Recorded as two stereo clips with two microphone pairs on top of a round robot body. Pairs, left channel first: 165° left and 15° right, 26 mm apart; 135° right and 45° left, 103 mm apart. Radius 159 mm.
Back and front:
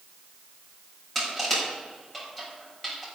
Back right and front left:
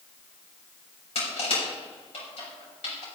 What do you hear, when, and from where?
1.1 s crushing: 110° right, 6 m